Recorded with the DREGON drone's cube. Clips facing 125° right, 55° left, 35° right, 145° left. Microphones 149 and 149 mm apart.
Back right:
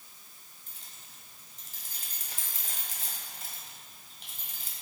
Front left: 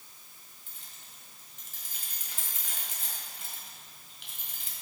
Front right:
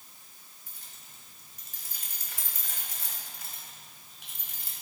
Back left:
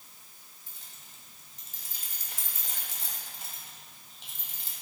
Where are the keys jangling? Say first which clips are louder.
Back right 1 dB, even; 160° right, 1.6 m.